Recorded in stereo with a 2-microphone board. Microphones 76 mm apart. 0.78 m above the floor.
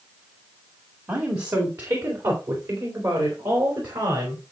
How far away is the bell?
I don't hear a bell.